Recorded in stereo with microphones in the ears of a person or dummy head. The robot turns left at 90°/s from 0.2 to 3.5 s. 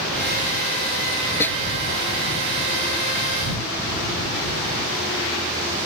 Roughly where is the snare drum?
Centre.